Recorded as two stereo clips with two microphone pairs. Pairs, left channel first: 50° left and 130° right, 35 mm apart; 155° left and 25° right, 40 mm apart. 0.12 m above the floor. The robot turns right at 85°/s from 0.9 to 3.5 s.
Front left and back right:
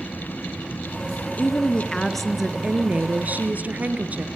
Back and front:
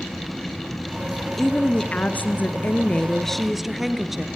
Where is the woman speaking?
70° left, 1.9 m; by 4.3 s 110° right, 1.9 m.